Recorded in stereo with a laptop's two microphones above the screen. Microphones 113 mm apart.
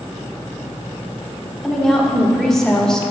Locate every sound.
1.6 s a woman speaking: centre (ahead or behind), 3 m; by 3.1 s 5° left (ahead or behind), 1.5 m